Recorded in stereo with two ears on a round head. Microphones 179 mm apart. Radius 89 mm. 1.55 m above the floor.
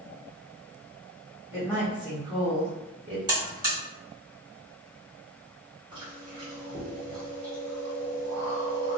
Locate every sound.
1.5 s a woman speaking: 5° left (ahead or behind), 1.2 m; by 3.2 s 45° right (ahead or behind), 1.1 m
3.3 s a buzzer: 20° right (ahead or behind), 1.5 m
5.9 s chewing: 20° right (ahead or behind), 1.2 m